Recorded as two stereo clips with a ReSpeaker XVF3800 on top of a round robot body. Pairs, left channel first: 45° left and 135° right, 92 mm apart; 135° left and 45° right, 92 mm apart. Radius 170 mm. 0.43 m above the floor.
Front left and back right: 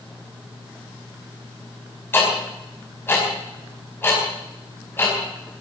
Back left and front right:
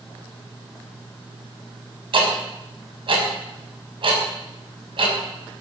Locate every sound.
2.1 s ticking: 20° right, 5 m